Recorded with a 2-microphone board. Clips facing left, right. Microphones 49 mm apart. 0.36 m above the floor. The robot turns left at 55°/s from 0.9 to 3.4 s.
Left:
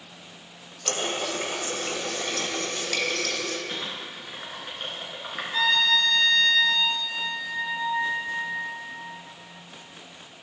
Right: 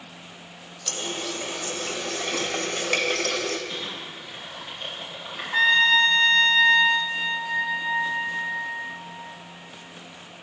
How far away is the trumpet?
About 1.1 m.